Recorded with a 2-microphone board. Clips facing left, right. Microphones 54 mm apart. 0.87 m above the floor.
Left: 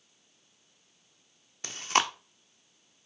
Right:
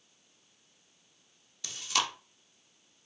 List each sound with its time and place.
1.6 s chewing: 40° left (ahead or behind), 0.8 m